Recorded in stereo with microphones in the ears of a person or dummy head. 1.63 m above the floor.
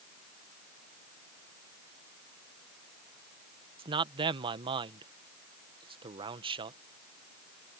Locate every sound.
3.8 s a man speaking: 30° right (ahead or behind)